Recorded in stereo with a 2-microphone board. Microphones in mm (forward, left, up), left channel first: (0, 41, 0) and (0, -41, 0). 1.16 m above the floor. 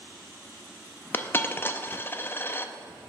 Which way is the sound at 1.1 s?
25° left (ahead or behind).